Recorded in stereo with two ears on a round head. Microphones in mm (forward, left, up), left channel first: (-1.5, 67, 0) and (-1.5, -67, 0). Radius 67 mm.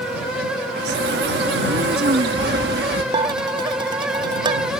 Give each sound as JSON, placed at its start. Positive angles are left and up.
{"t": 0.8, "sound": "a bird", "side_deg": -80}
{"t": 3.1, "sound": "dishes clattering", "side_deg": -30}